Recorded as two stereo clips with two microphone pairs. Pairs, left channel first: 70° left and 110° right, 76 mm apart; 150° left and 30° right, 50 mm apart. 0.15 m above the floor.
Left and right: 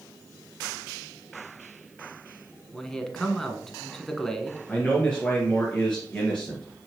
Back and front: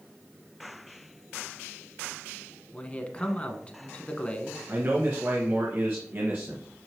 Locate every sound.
2.7 s a man speaking: 150° left, 1.1 m
4.7 s a man speaking: straight ahead, 1.8 m